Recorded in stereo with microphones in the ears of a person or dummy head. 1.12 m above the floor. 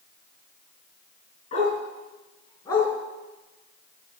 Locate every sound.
1.5 s a dog barking: 45° left (ahead or behind), 5 m; by 2.9 s 20° left (ahead or behind), 4 m